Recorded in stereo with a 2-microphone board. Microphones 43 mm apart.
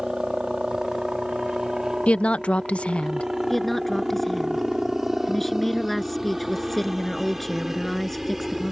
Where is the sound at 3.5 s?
5° left (ahead or behind).